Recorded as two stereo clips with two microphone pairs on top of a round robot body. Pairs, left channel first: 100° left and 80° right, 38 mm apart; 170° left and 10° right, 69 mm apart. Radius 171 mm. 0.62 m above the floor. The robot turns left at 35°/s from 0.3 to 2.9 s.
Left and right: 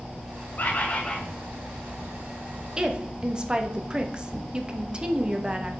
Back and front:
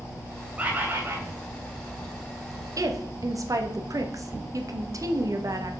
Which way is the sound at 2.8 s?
15° right.